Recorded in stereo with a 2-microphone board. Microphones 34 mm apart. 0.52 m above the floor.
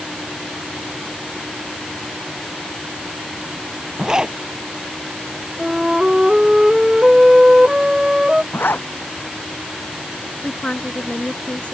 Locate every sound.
4.0 s a zipper: 25° right (ahead or behind)
5.6 s a flute: 20° right (ahead or behind)
8.5 s a zipper: 90° left
10.4 s a woman speaking: 35° left (ahead or behind)